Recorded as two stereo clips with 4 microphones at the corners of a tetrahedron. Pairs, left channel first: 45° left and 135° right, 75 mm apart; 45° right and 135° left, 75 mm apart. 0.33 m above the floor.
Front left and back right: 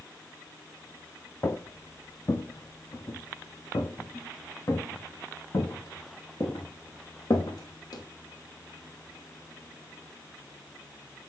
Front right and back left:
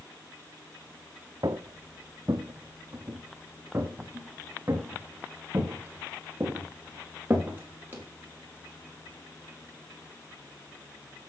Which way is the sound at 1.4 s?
100° left.